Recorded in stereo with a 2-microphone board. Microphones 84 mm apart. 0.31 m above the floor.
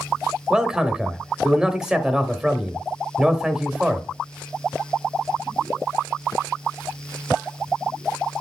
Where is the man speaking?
10° right (ahead or behind), 1.0 m.